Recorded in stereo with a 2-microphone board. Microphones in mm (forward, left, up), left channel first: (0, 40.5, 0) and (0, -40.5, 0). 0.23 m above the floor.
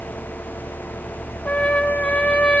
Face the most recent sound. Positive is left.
turn(degrees=15)  # may be behind; listen again after turning